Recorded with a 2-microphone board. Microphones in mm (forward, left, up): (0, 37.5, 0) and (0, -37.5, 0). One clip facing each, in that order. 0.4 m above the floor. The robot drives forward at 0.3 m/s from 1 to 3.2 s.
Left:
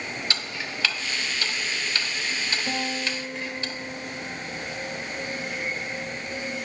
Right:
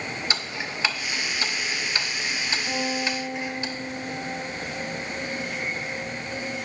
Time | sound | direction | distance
0.3 | ticking | 20° right (ahead or behind) | 0.6 m
2.7 | a guitar | 70° left (ahead or behind) | 1.8 m